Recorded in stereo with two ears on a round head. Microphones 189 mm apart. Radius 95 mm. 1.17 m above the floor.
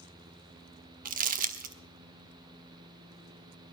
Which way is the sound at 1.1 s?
40° right (ahead or behind).